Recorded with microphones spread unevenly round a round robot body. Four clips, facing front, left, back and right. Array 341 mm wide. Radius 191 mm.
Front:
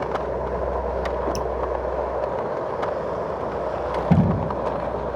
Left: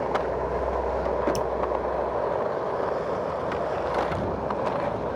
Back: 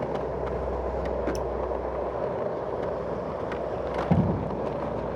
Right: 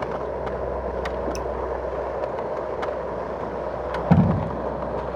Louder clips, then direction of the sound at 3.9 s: Right 5 dB, front 5 dB; 70° right.